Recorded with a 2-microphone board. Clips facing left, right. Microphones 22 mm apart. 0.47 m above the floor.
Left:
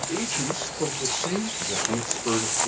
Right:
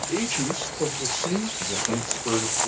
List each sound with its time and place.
0.1 s a man speaking: 35° right (ahead or behind), 0.9 m; by 1.5 s 20° left (ahead or behind), 1.1 m
1.6 s a man speaking: 15° left (ahead or behind), 0.8 m